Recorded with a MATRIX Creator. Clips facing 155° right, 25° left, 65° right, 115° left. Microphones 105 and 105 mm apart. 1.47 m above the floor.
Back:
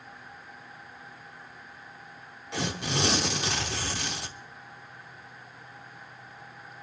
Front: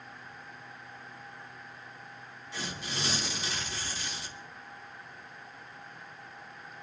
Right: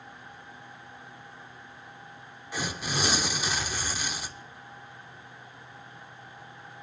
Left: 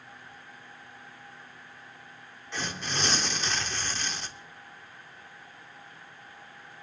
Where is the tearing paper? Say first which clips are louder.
Back 8 dB, right 2 dB; 145° right, 0.9 m.